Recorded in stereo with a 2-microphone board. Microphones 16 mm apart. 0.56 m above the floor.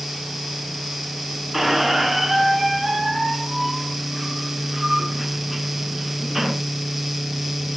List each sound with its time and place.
1.5 s a squeak: 20° right (ahead or behind), 1.7 m